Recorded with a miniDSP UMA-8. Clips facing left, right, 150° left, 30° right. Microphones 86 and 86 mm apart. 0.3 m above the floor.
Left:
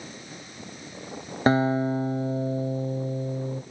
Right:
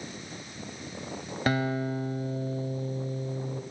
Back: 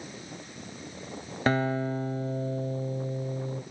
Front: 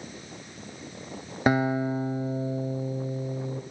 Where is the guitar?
45° left, 0.7 m.